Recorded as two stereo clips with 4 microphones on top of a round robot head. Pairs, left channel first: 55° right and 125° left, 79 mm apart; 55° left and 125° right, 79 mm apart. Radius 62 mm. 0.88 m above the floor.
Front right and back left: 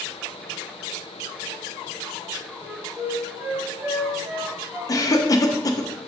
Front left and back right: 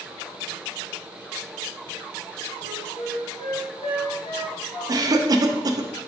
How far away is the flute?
About 2 m.